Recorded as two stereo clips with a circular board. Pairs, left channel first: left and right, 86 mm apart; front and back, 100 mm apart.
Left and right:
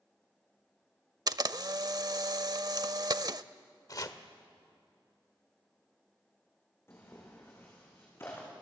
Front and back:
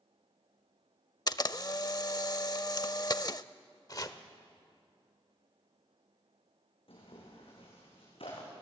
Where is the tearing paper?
25° left, 7 m.